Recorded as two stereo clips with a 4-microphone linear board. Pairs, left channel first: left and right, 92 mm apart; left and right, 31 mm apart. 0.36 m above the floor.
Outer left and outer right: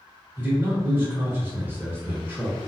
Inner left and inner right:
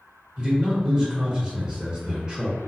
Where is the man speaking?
20° right (ahead or behind), 1.4 m.